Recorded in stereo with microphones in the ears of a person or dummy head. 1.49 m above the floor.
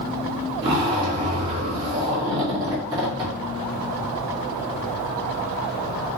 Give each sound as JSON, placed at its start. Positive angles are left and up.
{"t": 0.6, "sound": "a zipper", "side_deg": -25, "distance_m": 1.4}